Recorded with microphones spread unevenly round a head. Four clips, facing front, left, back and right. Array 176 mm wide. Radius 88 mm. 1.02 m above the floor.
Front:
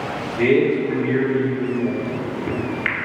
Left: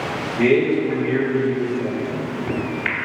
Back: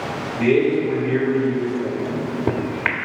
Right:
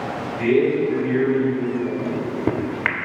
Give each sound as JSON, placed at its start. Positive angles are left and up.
{"t": 0.4, "sound": "a man speaking", "azimuth_deg": 45, "distance_m": 4.0}
{"t": 2.0, "sound": "a microwave", "azimuth_deg": -135, "distance_m": 1.2}